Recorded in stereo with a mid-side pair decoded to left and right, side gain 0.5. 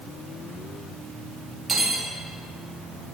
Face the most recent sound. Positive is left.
turn(degrees=-30)